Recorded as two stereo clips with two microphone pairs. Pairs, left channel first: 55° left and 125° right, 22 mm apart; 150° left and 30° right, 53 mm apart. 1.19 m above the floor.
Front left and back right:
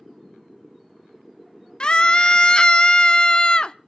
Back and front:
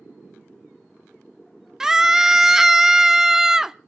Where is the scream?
50° left, 0.6 m.